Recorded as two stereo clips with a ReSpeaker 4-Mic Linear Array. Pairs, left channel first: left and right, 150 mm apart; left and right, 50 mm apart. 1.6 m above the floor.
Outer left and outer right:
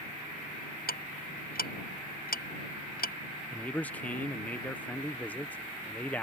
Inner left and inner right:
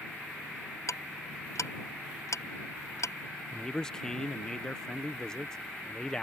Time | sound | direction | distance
0.9 | ticking | 85° left | ?
3.5 | a man speaking | 10° left (ahead or behind) | ?